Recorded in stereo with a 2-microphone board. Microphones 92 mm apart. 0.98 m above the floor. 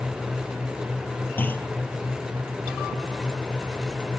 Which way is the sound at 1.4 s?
20° left (ahead or behind).